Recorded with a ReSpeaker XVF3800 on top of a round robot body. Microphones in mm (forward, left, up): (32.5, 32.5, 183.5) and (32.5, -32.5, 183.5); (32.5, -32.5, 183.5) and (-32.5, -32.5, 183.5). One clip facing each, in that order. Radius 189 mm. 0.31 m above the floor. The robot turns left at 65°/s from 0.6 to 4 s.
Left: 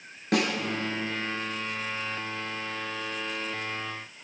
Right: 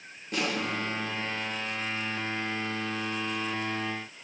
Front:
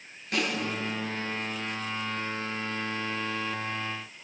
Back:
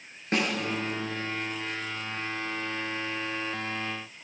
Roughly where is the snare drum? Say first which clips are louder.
Left 5 dB, back 2 dB; behind left.